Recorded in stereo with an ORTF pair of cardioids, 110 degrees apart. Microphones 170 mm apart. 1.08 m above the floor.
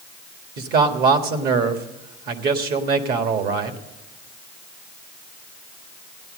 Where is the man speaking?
65° right, 1.7 m.